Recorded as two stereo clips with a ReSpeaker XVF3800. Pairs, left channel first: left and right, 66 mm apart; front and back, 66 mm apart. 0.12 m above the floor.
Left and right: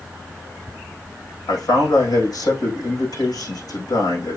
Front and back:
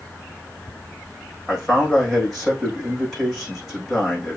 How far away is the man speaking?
About 5.5 m.